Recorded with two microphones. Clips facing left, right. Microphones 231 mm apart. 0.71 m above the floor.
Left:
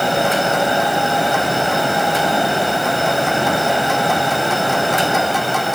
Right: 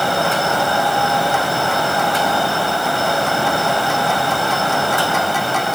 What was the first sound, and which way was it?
Only background noise.